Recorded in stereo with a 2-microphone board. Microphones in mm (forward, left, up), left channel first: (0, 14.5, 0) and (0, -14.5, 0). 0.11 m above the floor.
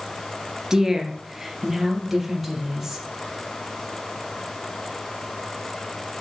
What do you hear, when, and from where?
0.7 s a woman speaking: 15° right (ahead or behind), 1.4 m; by 3.0 s 5° right (ahead or behind), 3 m